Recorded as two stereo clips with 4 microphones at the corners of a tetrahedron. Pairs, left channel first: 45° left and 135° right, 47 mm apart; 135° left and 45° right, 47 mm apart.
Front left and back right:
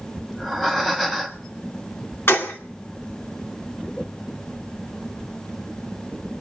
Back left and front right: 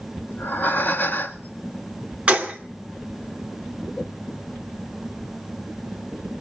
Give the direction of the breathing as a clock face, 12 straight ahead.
8 o'clock.